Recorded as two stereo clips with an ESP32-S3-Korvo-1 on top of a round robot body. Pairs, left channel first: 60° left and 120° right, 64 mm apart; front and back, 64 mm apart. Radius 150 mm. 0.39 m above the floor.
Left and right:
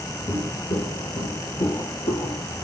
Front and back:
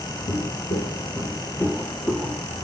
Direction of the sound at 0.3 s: 10° right.